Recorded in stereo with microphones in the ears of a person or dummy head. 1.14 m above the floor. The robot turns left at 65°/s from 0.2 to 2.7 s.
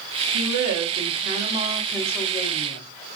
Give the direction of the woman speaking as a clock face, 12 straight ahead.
3 o'clock.